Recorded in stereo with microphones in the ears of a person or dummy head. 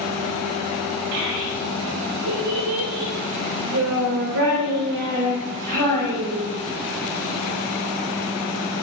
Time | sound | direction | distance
1.1 | a child speaking | 70° right (ahead or behind) | 3 m